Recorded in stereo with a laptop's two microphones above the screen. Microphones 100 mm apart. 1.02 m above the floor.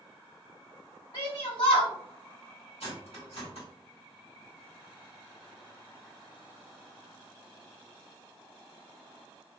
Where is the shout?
70° left (ahead or behind), 1.5 m.